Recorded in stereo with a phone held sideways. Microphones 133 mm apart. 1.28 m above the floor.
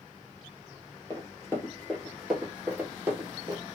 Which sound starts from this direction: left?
Running footsteps, at 1.1 s.